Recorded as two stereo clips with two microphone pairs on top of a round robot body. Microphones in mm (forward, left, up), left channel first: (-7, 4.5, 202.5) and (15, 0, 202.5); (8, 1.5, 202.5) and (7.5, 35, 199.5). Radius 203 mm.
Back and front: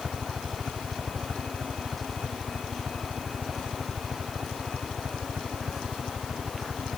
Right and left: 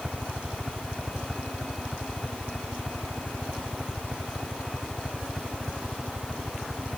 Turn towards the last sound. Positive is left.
turn(degrees=0)